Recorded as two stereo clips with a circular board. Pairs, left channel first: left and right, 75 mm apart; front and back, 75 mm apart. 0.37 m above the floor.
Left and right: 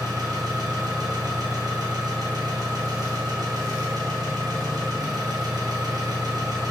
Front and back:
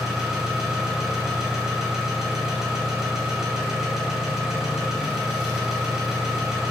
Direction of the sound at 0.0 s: 95° right.